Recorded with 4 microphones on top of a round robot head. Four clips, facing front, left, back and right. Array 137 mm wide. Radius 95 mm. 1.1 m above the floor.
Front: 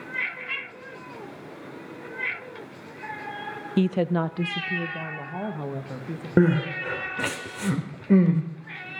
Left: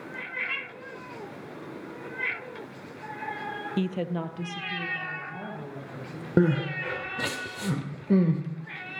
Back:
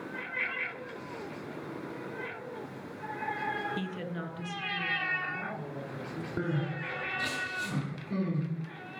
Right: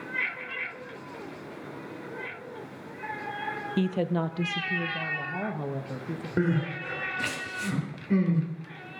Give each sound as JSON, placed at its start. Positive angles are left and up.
{"t": 3.8, "sound": "a woman speaking", "azimuth_deg": 0, "distance_m": 0.6}
{"t": 6.4, "sound": "crying", "azimuth_deg": 30, "distance_m": 1.5}